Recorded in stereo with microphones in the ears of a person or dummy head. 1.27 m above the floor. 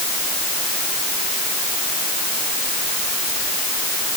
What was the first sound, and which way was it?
Only background noise.